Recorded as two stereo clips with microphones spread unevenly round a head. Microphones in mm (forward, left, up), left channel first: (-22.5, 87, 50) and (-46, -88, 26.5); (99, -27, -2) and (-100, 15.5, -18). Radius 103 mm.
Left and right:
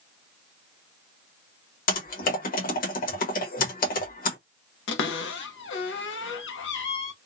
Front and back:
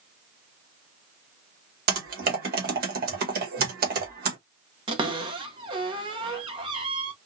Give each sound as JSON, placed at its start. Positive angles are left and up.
{"t": 1.9, "sound": "typing on a keyboard", "azimuth_deg": 120, "distance_m": 1.1}
{"t": 4.9, "sound": "a cupboard door", "azimuth_deg": 100, "distance_m": 0.8}